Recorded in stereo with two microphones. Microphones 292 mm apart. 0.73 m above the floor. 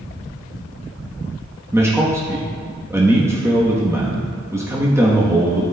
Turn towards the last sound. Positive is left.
turn(degrees=-10)  # may be behind; listen again after turning